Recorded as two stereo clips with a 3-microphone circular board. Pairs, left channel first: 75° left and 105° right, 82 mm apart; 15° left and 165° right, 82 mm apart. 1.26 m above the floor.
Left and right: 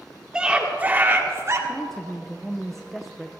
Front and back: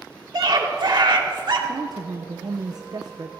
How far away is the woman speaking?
About 0.5 m.